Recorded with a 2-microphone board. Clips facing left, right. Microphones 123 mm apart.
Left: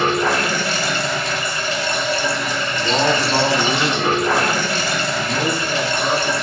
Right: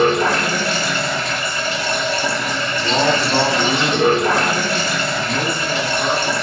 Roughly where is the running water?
Right.